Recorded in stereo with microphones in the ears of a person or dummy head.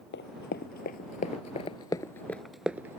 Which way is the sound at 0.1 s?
55° left (ahead or behind).